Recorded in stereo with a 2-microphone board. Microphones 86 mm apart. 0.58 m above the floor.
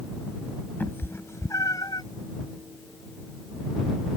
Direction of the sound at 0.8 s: 25° left (ahead or behind).